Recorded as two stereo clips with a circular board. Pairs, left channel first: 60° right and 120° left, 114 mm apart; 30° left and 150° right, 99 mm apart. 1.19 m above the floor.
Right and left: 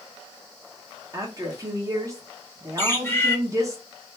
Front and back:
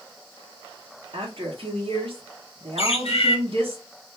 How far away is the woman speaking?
About 0.9 m.